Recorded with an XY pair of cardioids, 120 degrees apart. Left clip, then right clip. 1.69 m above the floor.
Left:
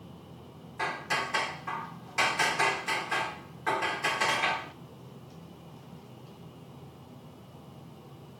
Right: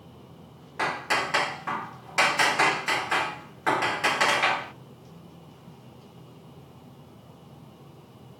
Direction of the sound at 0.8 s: 45° right.